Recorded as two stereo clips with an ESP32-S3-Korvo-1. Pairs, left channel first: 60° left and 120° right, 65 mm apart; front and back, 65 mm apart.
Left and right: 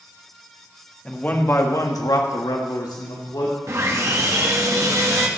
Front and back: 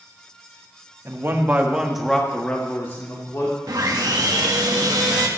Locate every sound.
1.1 s a man speaking: 135° left, 1.5 m; by 3.6 s 45° left, 2.5 m
3.7 s sawing: 160° right, 1.5 m